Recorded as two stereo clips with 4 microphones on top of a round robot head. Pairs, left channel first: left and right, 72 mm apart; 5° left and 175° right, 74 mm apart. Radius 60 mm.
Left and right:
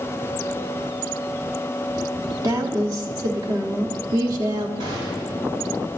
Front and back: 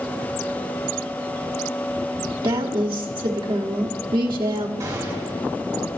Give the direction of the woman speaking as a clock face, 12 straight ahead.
5 o'clock.